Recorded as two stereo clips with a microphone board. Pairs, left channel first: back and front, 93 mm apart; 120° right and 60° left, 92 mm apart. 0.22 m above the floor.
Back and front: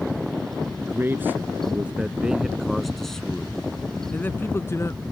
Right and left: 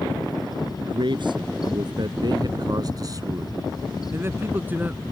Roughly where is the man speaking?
Ahead left.